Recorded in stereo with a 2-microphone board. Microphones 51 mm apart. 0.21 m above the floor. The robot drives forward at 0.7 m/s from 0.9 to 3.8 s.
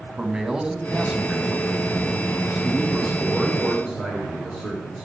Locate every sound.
0.2 s a man speaking: 15° right (ahead or behind), 1.2 m; by 5.0 s 10° right (ahead or behind), 1.7 m